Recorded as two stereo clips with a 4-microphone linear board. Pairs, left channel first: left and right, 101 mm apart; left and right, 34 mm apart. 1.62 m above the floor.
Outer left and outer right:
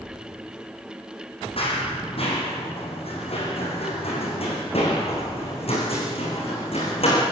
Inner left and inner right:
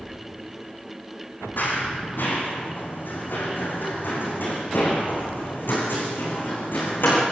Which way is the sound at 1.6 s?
70° left (ahead or behind).